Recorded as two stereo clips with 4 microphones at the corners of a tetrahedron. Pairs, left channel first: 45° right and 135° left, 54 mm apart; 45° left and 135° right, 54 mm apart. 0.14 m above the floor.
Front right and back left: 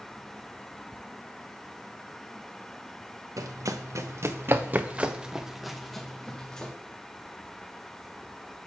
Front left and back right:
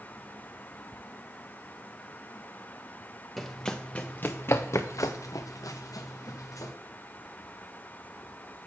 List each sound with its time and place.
3.4 s running footsteps: 130° left, 0.9 m; by 6.7 s 30° left, 1.4 m